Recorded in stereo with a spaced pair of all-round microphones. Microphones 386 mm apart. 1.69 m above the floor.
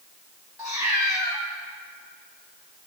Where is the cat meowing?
10° right (ahead or behind), 2 m.